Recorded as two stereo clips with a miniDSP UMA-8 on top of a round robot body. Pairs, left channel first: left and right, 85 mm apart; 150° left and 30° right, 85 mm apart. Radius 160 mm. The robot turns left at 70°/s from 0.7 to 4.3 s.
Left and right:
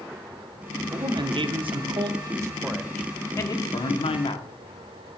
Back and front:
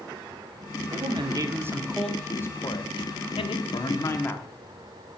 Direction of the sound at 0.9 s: 40° right.